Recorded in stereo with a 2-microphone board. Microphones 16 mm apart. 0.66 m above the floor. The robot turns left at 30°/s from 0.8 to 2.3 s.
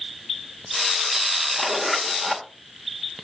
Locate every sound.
1.6 s a zipper: 20° left (ahead or behind), 2 m; by 2.5 s 5° right (ahead or behind), 2 m